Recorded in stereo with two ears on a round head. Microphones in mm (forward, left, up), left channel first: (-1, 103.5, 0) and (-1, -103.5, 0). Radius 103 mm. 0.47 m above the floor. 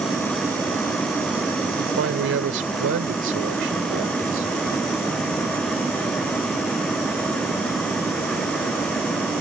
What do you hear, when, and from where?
1.8 s a man speaking: 50° right (ahead or behind)